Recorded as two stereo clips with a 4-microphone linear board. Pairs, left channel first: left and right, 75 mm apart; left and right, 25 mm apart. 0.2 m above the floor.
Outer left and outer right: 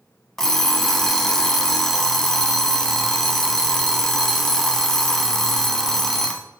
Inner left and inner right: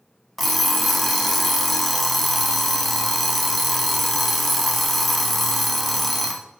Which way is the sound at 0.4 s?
5° left (ahead or behind).